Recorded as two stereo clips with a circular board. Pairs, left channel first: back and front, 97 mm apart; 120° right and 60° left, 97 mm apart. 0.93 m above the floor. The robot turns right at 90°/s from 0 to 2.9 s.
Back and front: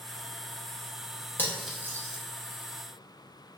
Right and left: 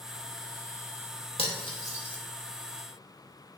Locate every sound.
1.4 s cutlery clinking: 110° right, 0.6 m; by 2.2 s 35° right, 0.6 m